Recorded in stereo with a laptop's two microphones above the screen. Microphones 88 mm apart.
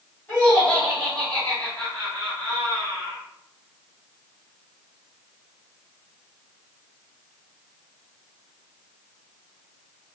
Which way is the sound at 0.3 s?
20° left (ahead or behind).